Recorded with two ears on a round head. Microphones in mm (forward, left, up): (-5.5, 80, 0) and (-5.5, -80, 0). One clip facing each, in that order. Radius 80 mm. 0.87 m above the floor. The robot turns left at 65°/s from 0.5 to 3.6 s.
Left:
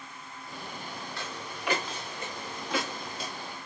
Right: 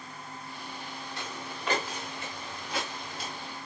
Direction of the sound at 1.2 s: 20° right (ahead or behind).